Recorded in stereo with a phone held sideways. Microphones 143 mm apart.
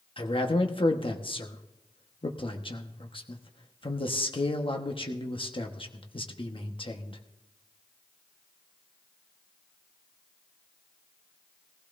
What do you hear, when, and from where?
0.2 s a man speaking: 40° left (ahead or behind), 1.3 m